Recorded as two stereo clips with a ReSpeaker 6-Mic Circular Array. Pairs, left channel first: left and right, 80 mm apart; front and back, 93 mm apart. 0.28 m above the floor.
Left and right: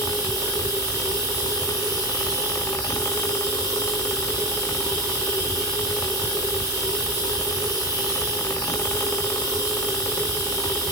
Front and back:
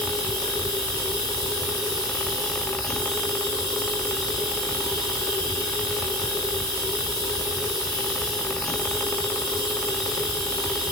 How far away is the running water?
About 3 m.